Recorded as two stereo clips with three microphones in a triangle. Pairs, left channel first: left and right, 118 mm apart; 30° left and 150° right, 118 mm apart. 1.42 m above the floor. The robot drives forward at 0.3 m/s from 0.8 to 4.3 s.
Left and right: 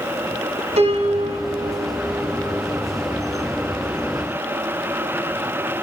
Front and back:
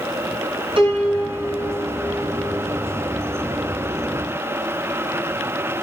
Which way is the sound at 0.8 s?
110° right.